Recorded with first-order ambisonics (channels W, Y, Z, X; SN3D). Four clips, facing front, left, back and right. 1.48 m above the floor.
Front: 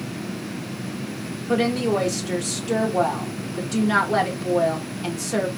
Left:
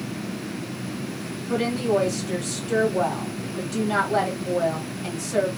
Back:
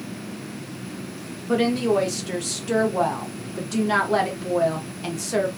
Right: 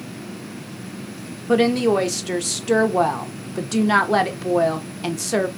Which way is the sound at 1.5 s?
90° right.